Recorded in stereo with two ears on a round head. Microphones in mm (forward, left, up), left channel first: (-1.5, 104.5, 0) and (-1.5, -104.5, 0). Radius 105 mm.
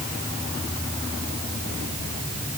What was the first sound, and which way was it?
Only background noise.